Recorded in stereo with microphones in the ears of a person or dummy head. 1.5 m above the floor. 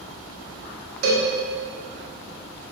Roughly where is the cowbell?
Right.